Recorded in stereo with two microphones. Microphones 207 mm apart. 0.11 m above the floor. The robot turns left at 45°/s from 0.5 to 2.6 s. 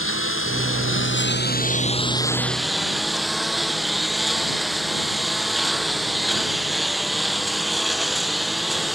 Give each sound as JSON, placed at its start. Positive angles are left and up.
{"t": 0.0, "sound": "a lawn mower", "azimuth_deg": 95}